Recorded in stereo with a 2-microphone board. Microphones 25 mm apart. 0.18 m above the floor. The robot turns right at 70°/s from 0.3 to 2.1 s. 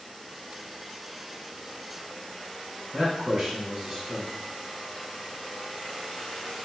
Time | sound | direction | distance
2.9 | a man speaking | 25° right (ahead or behind) | 1.3 m